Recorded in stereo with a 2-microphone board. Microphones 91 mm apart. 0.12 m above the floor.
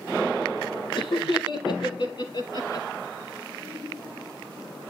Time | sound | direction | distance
0.9 | laughter | 65° left (ahead or behind) | 4 m